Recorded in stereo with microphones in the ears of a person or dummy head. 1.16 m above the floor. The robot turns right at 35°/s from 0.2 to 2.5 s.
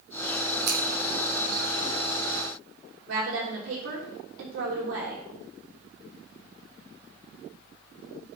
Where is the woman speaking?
80° right, 3 m.